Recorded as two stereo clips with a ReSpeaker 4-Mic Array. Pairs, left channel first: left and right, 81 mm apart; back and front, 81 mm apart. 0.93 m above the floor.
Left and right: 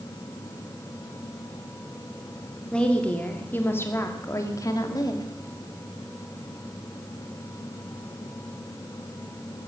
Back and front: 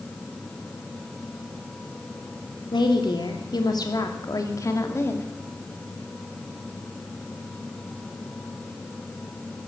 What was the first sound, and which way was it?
A woman speaking, 170° left.